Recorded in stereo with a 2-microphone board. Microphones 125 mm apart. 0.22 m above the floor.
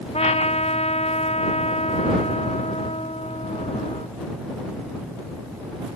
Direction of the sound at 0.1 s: 55° left (ahead or behind).